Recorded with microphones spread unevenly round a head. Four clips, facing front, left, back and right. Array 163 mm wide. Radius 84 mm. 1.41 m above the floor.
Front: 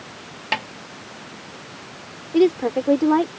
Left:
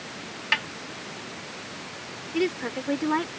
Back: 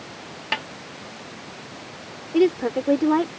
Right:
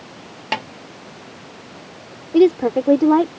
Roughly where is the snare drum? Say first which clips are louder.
Right 5 dB, front 3 dB; right.